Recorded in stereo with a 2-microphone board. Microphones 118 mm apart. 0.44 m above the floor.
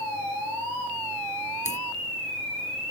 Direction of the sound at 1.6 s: 80° left.